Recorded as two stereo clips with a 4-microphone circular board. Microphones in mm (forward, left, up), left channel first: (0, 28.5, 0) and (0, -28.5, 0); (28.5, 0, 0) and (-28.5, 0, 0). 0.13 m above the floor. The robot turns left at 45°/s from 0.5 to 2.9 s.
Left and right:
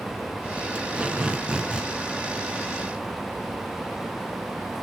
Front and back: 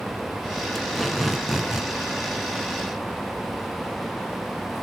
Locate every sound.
0.8 s tape being pulled: 80° right, 1.5 m; by 1.9 s 130° right, 1.5 m